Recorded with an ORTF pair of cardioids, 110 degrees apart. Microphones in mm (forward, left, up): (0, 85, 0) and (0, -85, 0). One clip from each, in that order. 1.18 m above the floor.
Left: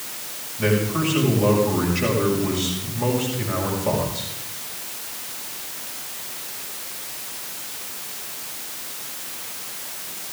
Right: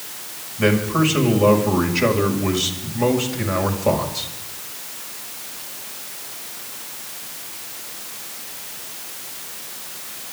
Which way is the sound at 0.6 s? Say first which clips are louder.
Right 4 dB; 40° right.